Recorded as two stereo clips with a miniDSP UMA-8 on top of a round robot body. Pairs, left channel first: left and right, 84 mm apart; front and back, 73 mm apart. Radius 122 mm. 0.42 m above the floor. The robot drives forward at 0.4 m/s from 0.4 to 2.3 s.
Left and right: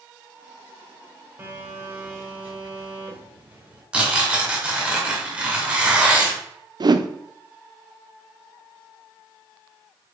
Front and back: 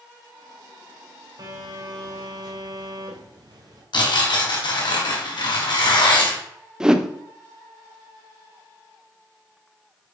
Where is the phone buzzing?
155° right, 1.7 m; by 3.8 s 160° right, 2 m.